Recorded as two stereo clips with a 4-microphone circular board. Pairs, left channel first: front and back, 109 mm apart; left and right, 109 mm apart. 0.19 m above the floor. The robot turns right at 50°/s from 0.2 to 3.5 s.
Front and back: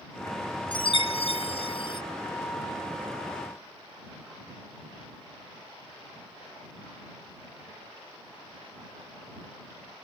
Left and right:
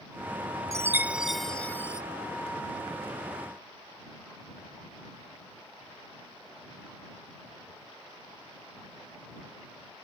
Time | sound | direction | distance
0.7 | a chime | 35° right | ?